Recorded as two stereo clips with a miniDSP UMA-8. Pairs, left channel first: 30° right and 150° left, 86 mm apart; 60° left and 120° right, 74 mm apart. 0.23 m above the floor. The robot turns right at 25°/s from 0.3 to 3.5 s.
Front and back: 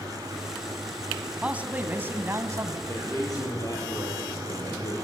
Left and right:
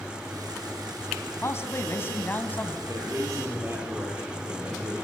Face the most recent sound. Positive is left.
turn(degrees=-70)